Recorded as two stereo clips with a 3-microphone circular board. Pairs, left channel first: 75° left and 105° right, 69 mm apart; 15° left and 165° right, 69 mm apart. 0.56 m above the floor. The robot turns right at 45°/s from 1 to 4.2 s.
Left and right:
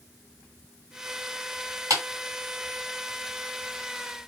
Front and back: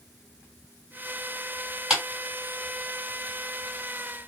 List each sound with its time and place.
1.9 s a clap: 85° right, 1.8 m; by 2.0 s 80° right, 1.8 m